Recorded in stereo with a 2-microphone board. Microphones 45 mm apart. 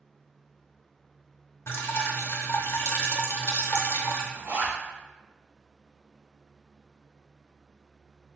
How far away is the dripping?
About 0.6 m.